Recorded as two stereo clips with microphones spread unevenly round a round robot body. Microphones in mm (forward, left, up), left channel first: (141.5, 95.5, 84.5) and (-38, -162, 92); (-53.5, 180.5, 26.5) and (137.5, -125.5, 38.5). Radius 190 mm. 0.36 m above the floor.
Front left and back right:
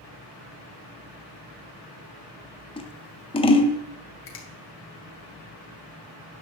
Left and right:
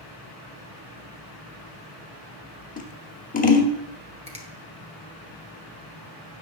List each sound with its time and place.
2.8 s scissors: 100° left, 1.1 m
4.3 s a finger snap: 15° left, 2 m